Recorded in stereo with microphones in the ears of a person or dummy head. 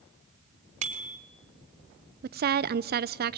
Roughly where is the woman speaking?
Right.